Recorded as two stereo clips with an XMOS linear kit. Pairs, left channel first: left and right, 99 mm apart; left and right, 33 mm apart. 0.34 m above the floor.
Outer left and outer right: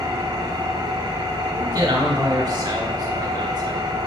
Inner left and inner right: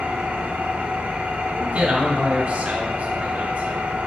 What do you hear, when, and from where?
0.0 s an engine running: 40° right (ahead or behind), 1.0 m
1.5 s a man speaking: 45° right (ahead or behind), 2.5 m